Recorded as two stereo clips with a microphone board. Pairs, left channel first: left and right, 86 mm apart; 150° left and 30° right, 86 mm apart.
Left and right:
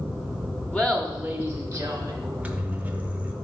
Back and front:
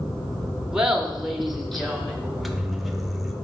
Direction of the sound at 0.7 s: 40° left.